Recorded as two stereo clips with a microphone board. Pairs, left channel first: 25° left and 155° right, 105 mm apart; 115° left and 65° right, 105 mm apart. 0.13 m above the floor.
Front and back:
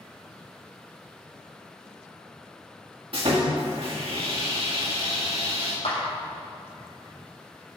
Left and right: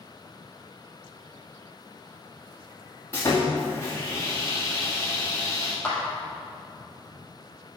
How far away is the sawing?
About 2.5 m.